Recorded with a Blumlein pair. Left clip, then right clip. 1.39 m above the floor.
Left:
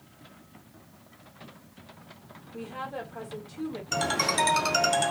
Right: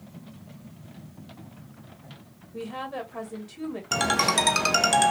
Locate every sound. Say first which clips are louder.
2.5 s a woman speaking: right 3 dB; 40° right, 2.5 m
3.9 s a ringtone: right 4 dB; 55° right, 1.3 m